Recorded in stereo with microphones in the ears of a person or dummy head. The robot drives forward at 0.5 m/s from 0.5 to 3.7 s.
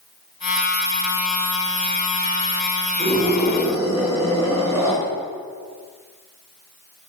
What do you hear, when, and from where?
3.0 s a scream: 15° right (ahead or behind), 6.5 m